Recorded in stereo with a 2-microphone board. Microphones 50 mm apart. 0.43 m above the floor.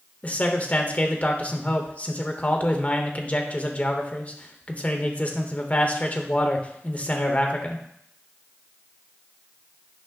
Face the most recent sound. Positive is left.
turn(degrees=30)  # may be behind; listen again after turning